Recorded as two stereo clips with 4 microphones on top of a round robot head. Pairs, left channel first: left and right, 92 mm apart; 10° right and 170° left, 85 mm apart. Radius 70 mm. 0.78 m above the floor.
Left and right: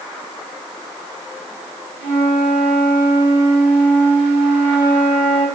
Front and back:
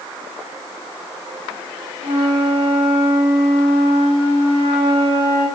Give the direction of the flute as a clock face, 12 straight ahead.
12 o'clock.